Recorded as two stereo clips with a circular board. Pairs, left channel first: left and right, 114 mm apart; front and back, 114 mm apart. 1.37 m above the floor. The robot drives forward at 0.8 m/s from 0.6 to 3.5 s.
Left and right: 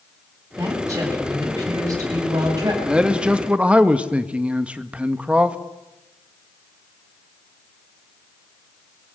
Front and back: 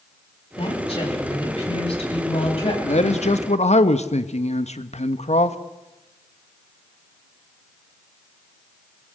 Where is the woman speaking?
25° right, 9 m; by 2.7 s 30° right, 7.5 m.